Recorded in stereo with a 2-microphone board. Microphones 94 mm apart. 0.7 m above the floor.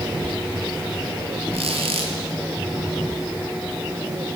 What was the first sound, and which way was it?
A squeak, 85° right.